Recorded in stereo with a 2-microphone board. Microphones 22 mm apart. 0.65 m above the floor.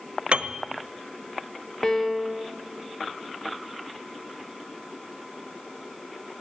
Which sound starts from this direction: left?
A piano, at 1.8 s.